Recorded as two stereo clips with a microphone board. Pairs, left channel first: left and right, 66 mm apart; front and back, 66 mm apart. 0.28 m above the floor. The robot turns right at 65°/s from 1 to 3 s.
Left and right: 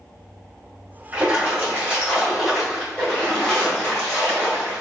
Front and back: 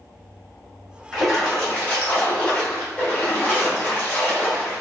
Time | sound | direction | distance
1.1 | a splash | 95° right | 1.5 m